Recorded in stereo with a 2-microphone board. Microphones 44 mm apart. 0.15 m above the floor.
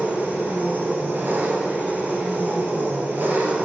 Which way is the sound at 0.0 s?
50° right (ahead or behind).